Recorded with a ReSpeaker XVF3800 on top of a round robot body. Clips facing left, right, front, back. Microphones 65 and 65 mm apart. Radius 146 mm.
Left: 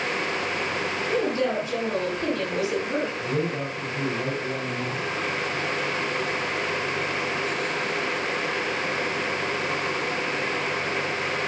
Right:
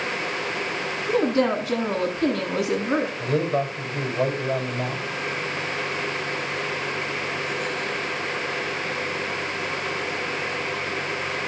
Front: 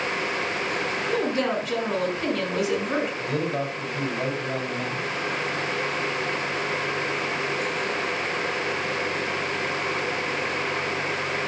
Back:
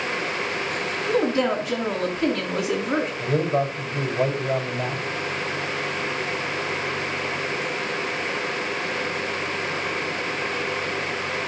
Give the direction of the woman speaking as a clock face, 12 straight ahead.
3 o'clock.